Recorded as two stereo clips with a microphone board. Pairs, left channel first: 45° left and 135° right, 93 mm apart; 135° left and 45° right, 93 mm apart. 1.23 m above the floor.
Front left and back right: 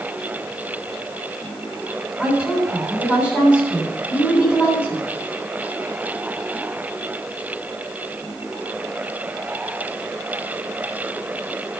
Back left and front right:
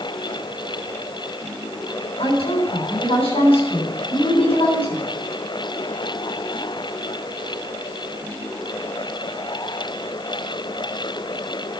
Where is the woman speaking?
145° left, 8.5 m.